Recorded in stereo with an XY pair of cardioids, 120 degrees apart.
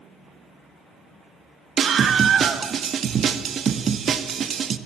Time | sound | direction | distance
1.8 | a scream | 45° right | 1.6 m